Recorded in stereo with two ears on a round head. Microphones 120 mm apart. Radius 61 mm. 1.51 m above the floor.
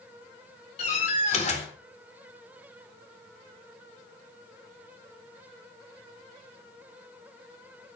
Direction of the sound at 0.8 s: 50° left (ahead or behind).